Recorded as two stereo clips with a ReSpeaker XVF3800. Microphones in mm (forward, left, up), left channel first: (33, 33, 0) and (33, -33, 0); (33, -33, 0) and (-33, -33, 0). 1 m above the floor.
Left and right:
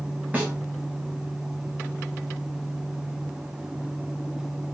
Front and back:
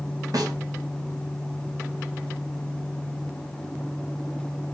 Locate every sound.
0.3 s a snare drum: 155° right, 3.5 m